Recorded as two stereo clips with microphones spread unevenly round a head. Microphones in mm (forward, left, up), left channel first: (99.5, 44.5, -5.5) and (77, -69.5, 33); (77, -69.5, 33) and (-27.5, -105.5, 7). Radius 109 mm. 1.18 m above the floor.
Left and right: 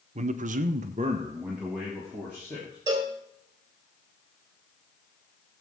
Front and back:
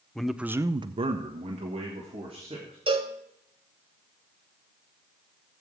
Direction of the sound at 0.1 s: 70° right.